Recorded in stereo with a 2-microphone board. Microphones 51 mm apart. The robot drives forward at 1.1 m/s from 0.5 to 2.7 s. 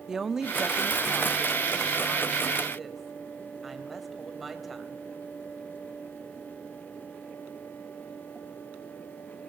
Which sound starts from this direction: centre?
A woman speaking, at 0.1 s.